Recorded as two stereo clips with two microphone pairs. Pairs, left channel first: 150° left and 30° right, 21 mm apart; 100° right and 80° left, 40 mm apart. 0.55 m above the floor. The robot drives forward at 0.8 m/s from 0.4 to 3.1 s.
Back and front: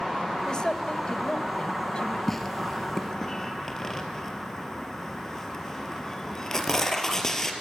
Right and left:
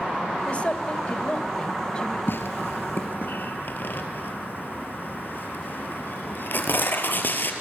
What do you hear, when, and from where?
0.5 s a woman speaking: 155° right, 1.6 m; by 2.2 s 165° right, 3 m
2.3 s tearing paper: 125° right, 2.5 m; by 7.5 s 135° right, 3 m